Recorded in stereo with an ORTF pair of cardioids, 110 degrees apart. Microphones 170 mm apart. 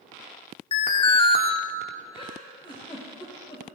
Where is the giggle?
30° left, 6.5 m.